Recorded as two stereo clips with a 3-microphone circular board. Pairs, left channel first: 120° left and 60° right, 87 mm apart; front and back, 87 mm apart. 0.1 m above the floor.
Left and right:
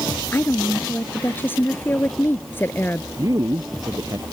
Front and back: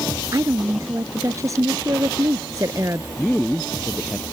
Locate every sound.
0.3 s a woman speaking: 170° left
3.2 s a man speaking: 85° right